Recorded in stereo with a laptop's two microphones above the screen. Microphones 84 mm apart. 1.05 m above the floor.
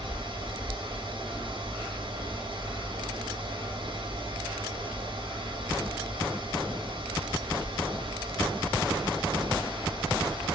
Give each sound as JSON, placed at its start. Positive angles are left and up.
{"t": 0.0, "sound": "a fan", "side_deg": -65, "distance_m": 1.7}